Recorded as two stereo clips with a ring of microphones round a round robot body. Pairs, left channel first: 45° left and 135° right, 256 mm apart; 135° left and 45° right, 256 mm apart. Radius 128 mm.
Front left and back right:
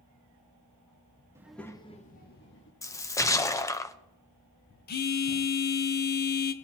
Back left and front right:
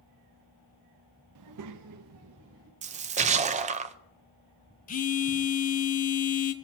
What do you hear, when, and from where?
1.4 s a child speaking: 55° right, 0.7 m; by 2.7 s straight ahead, 1.3 m
2.8 s a splash: 20° right, 0.6 m
4.9 s a phone buzzing: 85° left, 0.7 m